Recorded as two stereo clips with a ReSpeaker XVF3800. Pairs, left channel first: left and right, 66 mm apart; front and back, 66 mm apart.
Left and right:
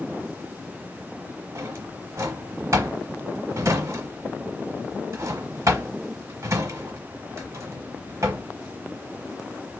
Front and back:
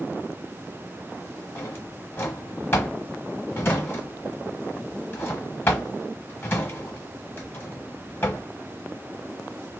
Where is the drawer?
55° right, 1.0 m.